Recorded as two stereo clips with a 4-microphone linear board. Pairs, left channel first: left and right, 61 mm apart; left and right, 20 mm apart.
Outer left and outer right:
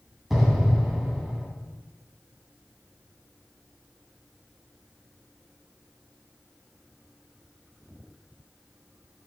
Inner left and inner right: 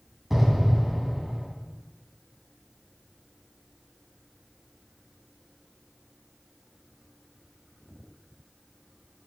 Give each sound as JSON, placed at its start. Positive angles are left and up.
{"t": 0.3, "sound": "an explosion", "side_deg": -5, "distance_m": 2.0}